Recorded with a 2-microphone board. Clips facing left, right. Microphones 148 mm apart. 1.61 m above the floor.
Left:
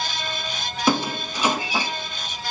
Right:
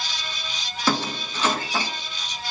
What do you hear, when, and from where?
0.9 s a squeak: 15° left (ahead or behind), 0.9 m